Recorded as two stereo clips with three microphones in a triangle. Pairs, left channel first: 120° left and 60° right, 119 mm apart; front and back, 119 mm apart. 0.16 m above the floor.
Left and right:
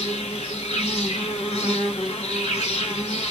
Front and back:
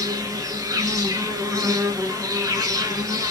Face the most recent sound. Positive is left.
turn(degrees=120)